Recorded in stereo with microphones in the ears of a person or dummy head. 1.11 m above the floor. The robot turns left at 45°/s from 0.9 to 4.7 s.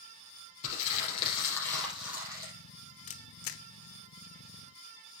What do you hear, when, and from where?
0.6 s crumpling: 45° left, 5.5 m; by 2.5 s 30° right, 5.5 m
3.1 s a camera shutter: 40° left (ahead or behind), 0.7 m; by 3.6 s 60° left (ahead or behind), 0.7 m